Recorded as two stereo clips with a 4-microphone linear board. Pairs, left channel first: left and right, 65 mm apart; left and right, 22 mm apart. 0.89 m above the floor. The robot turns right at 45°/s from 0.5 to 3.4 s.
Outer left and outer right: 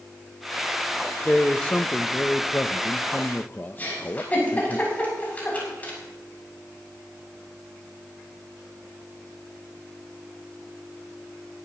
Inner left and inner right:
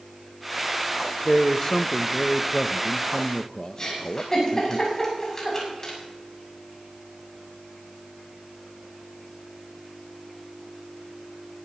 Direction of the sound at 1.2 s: 20° left.